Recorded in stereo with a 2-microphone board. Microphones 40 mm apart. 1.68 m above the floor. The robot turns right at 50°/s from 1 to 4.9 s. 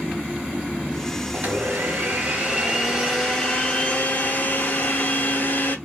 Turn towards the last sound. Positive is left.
turn(degrees=90)